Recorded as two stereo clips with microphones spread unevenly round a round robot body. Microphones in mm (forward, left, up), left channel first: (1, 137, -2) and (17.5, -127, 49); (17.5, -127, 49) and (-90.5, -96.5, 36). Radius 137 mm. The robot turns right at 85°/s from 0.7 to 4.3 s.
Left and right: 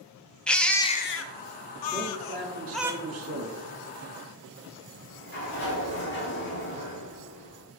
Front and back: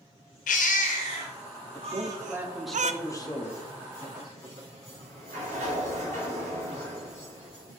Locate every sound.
0.5 s a baby crying: 5° left, 0.5 m; by 2.9 s 165° right, 0.5 m
1.9 s a man speaking: straight behind, 1.3 m; by 3.6 s 35° right, 1.3 m
4.9 s a sliding door: 145° left, 3 m